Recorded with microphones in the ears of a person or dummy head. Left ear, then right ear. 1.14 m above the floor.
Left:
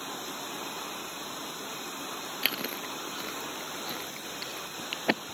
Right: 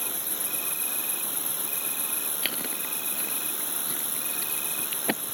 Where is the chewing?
10° left (ahead or behind).